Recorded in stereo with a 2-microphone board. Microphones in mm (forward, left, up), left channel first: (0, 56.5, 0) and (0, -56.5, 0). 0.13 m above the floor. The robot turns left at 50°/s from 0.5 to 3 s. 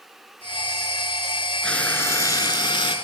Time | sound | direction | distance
1.6 | frying | 170° left | 0.5 m